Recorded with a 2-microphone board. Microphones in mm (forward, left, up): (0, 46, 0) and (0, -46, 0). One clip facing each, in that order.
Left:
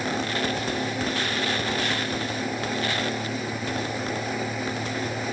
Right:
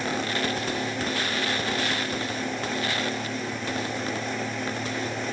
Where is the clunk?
I don't hear a clunk.